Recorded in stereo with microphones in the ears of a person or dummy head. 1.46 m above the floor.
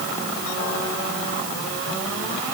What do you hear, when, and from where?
Only background noise.